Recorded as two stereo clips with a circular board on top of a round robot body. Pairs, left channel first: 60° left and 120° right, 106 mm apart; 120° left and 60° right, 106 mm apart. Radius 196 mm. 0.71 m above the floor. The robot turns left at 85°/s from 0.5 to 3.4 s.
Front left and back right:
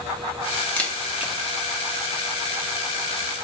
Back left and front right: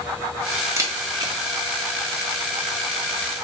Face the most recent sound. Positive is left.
turn(degrees=125)